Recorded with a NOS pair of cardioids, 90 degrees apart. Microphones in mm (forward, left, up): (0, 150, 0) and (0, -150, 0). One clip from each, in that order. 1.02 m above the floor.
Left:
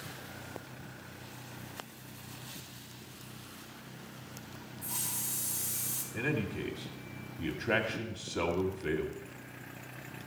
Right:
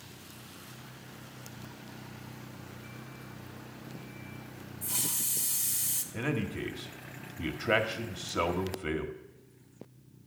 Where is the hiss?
60° right, 1.9 m.